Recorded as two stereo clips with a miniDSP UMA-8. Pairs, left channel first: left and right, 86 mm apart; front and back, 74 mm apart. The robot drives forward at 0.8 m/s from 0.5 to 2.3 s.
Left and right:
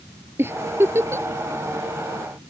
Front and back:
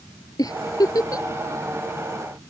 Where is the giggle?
30° right; by 1.3 s 35° right.